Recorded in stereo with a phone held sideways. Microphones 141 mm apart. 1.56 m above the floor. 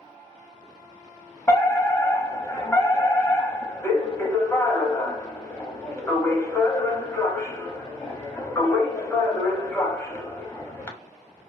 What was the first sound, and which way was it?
A fire alarm, 20° left (ahead or behind).